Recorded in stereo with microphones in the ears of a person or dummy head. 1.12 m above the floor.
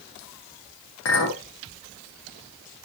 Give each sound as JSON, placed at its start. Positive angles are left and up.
{"t": 1.1, "sound": "a clink", "side_deg": 75, "distance_m": 1.1}